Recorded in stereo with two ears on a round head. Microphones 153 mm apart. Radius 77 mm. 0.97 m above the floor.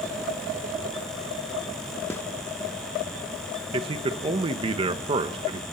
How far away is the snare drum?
About 1.0 m.